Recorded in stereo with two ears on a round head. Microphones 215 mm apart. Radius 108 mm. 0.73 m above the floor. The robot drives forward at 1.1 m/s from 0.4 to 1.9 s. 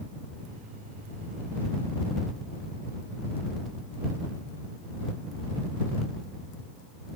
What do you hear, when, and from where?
Only background noise.